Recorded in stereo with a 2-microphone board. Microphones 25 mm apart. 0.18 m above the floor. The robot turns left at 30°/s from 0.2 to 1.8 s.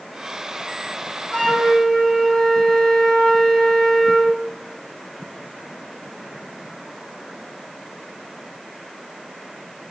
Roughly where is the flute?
Left.